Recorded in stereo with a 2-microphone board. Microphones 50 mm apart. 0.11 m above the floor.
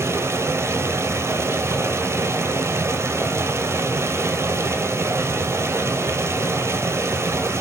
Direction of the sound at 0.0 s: 65° right (ahead or behind).